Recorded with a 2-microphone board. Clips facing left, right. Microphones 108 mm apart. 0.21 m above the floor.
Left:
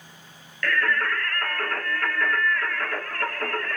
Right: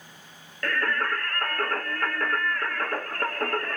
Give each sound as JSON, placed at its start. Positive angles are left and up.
{"t": 0.6, "sound": "singing", "side_deg": -35, "distance_m": 0.7}